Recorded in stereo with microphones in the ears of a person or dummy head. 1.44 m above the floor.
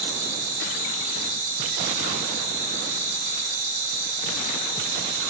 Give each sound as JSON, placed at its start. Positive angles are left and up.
{"t": 0.0, "sound": "an insect", "side_deg": -60, "distance_m": 4.0}